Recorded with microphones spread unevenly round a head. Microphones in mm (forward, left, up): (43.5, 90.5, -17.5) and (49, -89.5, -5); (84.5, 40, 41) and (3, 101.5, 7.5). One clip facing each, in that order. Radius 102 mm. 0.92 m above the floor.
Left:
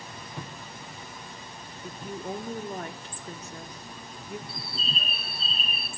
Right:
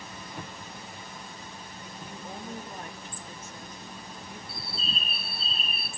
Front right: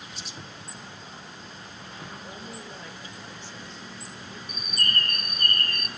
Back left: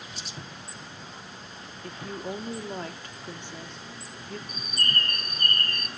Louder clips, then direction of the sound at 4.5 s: Left 1 dB, front right 2 dB; 95° left.